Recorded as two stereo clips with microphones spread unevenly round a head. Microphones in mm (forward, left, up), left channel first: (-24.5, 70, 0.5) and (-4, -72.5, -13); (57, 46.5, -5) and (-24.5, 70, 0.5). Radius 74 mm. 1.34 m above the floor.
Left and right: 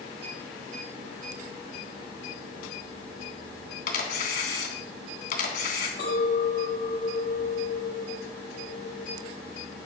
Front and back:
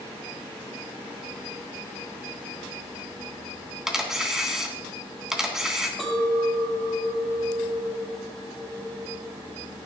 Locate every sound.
3.9 s a camera shutter: 80° left, 3 m
6.0 s a clink: 70° left, 5.5 m